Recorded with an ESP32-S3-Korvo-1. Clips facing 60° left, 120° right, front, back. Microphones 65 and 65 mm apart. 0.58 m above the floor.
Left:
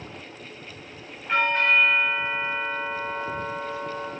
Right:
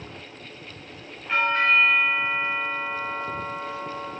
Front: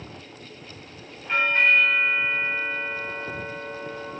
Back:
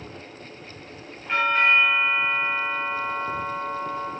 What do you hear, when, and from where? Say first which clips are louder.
1.3 s a doorbell: even, back 1 dB; 135° left, 1.5 m